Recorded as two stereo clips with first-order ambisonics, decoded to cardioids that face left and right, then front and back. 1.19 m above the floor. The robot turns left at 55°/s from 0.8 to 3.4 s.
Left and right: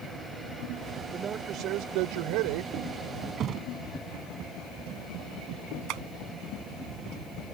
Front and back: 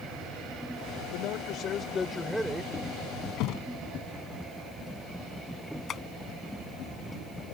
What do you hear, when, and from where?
1.1 s a man speaking: 20° right; by 2.7 s 110° right
3.4 s a thud: 30° right
5.9 s tapping: 60° right